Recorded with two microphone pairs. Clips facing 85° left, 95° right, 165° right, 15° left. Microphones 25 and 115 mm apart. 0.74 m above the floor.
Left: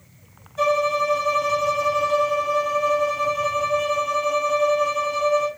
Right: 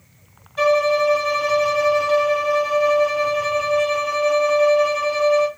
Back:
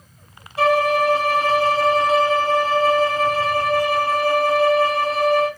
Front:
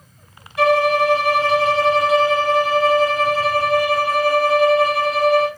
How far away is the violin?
About 1.0 m.